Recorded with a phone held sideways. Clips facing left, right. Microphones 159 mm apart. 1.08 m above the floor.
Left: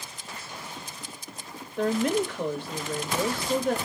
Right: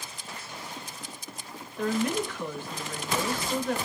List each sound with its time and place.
1.8 s a woman speaking: 65° left (ahead or behind), 2 m